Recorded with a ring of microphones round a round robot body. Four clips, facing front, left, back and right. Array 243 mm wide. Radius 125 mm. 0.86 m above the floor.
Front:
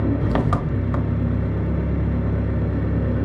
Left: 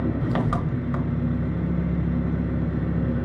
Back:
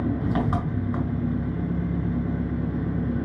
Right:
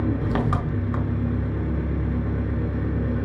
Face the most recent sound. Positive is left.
turn(degrees=0)